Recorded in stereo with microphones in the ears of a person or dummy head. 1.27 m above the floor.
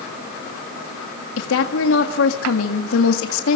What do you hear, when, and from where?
1.4 s a woman speaking: 75° left (ahead or behind), 2.0 m